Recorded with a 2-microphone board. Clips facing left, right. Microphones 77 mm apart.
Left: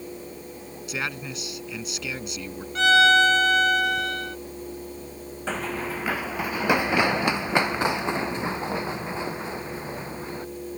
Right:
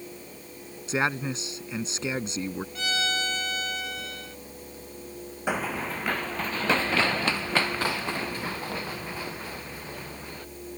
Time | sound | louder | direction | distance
0.9 | a man speaking | right 5 dB | 35° right (ahead or behind) | ?
2.8 | a violin | left 15 dB | 85° left | ?
5.5 | running footsteps | even | 15° right (ahead or behind) | ?